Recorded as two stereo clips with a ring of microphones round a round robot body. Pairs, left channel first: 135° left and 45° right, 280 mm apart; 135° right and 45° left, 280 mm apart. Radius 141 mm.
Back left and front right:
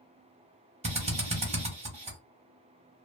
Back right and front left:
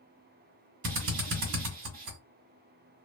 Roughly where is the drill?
Ahead.